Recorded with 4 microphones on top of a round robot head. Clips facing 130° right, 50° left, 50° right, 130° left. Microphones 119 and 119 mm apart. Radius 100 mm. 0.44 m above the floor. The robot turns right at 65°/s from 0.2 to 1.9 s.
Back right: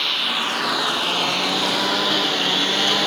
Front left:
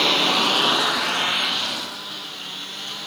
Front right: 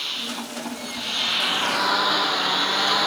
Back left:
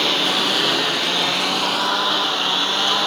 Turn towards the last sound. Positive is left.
turn(degrees=-150)